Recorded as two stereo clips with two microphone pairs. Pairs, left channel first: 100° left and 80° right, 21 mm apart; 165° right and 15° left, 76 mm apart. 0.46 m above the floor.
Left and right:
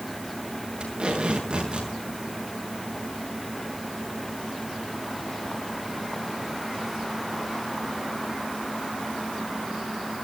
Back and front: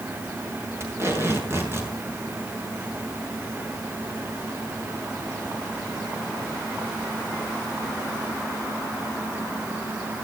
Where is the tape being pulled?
40° right, 6.5 m.